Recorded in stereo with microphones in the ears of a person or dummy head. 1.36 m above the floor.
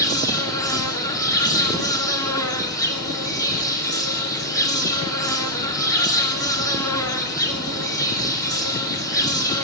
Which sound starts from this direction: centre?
An insect, at 0.0 s.